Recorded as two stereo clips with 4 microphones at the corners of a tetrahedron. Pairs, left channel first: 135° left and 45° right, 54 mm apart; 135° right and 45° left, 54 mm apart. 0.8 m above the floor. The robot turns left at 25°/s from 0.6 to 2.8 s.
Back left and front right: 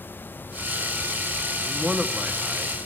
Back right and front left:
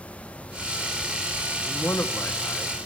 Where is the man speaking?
110° right, 1.6 m; by 2.7 s 140° right, 1.6 m.